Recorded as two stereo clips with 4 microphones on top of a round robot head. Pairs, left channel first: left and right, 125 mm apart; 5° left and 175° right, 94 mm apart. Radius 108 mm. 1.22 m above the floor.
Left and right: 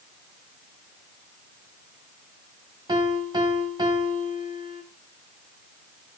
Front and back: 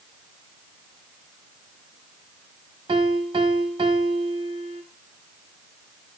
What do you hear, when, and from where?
2.9 s a piano: 145° right, 1.3 m